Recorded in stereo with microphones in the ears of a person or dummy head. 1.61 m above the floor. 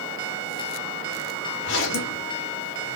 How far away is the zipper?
About 1.2 m.